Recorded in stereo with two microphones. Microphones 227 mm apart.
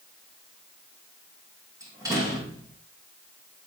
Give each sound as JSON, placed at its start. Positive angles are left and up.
{"t": 1.8, "sound": "a door slam", "side_deg": -15, "distance_m": 8.5}